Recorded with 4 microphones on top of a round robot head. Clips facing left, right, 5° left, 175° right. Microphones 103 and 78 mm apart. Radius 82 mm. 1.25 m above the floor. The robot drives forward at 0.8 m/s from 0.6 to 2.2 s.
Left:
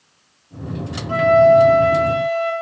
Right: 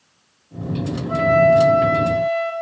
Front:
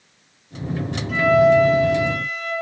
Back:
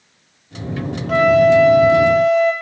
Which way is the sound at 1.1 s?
Straight behind.